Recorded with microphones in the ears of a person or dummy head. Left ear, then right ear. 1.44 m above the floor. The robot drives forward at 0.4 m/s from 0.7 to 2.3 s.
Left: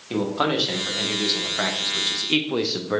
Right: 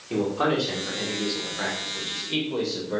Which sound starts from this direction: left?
A man speaking, at 0.1 s.